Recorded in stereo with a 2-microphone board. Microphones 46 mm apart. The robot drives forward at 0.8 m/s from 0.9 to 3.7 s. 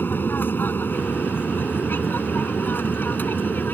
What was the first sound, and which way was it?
An aircraft, 50° left (ahead or behind).